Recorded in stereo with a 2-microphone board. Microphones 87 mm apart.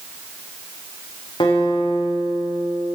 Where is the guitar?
60° left (ahead or behind), 5.5 m.